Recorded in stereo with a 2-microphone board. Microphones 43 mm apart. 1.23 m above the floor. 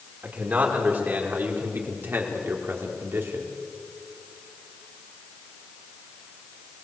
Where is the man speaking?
40° right (ahead or behind), 4.5 m; by 3.5 s 60° right (ahead or behind), 4 m.